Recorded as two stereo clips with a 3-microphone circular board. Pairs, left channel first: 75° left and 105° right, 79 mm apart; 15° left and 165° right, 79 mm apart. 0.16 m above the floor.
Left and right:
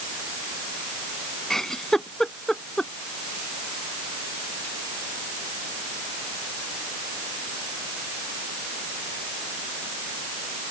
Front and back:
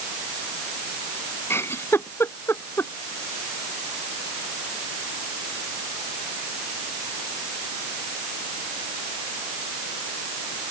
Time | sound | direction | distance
1.5 | a giggle | 5° right | ?